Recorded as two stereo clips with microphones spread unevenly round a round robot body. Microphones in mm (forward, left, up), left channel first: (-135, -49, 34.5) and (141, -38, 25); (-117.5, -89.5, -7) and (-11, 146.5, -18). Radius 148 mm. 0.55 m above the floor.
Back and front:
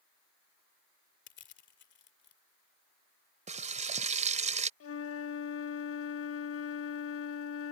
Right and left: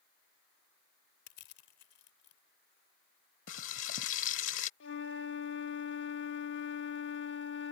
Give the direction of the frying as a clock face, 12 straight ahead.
2 o'clock.